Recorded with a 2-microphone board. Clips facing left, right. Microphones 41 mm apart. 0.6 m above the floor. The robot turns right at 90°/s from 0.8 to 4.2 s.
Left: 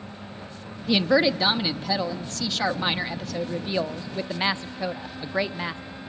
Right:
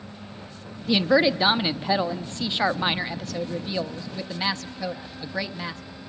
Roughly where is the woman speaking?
Centre.